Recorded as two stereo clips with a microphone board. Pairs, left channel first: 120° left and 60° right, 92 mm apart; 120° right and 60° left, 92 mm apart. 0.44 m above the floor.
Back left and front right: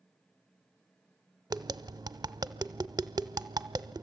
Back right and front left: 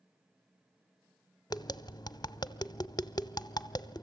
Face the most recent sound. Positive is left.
turn(degrees=-95)